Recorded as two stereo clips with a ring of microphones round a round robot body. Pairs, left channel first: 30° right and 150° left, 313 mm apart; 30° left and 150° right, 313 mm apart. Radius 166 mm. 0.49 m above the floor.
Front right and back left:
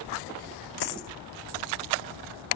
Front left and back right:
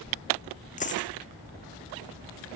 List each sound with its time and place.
0.8 s a dropped coin: 35° right